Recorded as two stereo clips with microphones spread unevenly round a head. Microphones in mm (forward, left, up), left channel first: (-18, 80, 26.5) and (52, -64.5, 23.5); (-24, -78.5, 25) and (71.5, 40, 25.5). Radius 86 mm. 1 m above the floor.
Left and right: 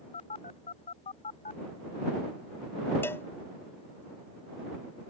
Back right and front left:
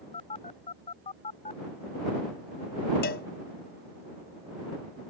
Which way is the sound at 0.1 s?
170° left.